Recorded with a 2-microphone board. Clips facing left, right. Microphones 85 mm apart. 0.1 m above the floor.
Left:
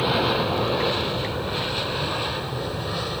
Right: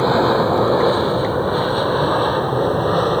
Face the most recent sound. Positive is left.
turn(degrees=-40)  # may be behind; listen again after turning